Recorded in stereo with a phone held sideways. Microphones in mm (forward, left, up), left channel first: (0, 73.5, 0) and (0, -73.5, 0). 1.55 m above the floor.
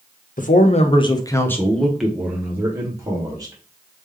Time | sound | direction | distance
0.4 | a man speaking | 60° left (ahead or behind) | 0.8 m